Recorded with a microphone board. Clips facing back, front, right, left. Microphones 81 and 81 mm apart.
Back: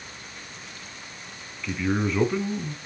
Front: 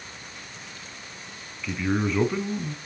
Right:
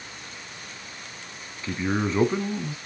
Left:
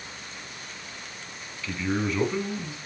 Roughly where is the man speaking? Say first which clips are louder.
Even, right 2 dB; right.